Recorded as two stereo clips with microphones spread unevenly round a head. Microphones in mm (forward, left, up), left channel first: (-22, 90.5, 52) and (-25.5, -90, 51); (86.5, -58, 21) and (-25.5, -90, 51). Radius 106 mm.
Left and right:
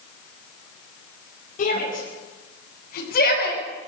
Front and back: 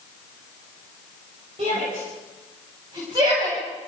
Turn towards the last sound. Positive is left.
turn(degrees=130)